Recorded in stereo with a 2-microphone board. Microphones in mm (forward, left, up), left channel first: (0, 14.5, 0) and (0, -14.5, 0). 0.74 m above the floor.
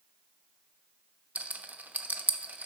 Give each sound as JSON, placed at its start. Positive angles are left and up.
{"t": 1.4, "sound": "a rattle", "side_deg": -65, "distance_m": 0.7}